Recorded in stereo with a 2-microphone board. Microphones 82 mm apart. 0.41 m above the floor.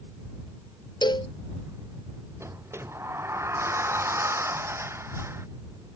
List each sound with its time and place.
1.0 s a cowbell: 70° left (ahead or behind)
2.4 s a sliding door: 35° right (ahead or behind)